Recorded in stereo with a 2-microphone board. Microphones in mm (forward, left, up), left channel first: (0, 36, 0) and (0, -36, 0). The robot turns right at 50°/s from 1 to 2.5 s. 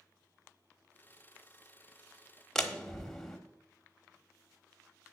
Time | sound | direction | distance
2.5 | a door slam | 5° left (ahead or behind) | 1.1 m